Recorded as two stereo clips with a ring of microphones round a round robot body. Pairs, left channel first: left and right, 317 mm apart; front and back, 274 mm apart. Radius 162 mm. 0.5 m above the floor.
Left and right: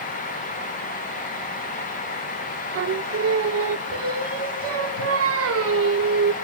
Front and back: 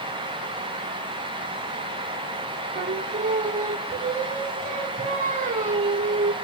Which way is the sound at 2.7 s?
120° right.